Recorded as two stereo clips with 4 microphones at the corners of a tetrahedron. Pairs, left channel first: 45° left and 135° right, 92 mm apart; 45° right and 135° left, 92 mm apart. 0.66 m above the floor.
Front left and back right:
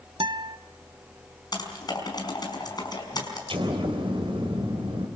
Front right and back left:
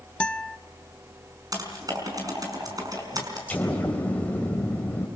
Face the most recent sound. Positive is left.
turn(degrees=-120)